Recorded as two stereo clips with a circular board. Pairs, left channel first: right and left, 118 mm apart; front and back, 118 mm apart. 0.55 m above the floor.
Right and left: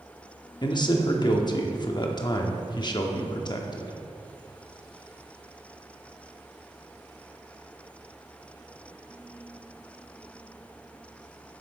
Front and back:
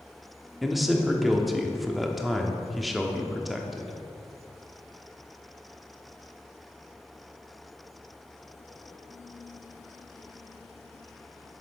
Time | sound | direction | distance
0.6 | a man speaking | 90° right | 0.7 m